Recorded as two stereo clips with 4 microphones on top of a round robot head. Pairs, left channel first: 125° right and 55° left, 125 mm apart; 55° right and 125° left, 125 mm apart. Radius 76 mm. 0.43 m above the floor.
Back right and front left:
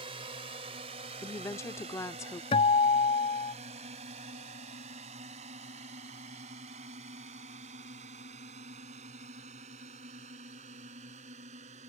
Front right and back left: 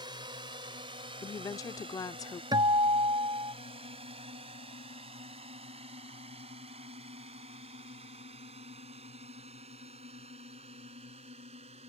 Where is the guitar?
175° right.